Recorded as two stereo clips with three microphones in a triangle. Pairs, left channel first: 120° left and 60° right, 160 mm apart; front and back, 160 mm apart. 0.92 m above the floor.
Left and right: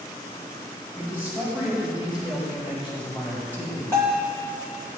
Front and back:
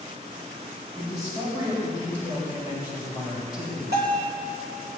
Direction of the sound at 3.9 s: 165° right.